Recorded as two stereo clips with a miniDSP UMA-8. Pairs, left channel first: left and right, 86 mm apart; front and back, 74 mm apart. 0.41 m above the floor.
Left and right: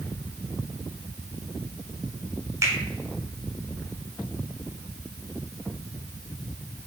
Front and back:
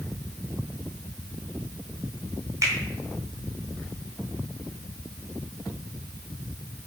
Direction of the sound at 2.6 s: 140° right.